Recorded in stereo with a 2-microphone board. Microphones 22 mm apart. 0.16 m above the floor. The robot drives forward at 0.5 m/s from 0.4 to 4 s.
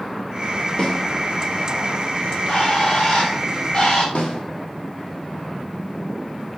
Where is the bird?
60° left (ahead or behind), 5 m; by 4.0 s 70° left (ahead or behind), 4.5 m.